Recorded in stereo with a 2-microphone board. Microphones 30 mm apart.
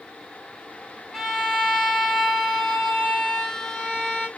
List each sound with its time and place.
1.1 s a violin: 25° left (ahead or behind), 5 m